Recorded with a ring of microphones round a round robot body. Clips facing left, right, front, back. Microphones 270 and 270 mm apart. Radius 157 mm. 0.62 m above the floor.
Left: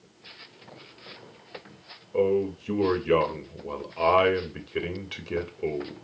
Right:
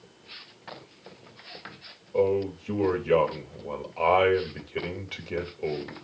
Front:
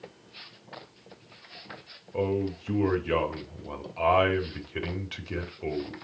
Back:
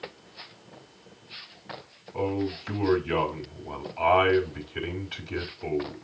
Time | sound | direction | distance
2.1 | a man speaking | 20° left | 3 m